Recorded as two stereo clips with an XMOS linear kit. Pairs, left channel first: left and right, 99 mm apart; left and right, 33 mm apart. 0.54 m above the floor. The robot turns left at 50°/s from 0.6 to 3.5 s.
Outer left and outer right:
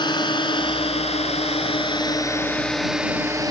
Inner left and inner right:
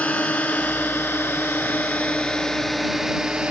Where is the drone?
50° left (ahead or behind); by 3.5 s 35° right (ahead or behind).